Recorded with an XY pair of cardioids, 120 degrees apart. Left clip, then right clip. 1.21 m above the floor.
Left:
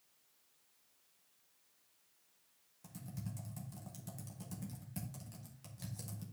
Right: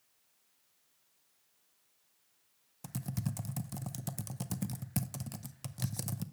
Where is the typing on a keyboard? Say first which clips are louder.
Right 9 dB; 65° right, 0.6 m.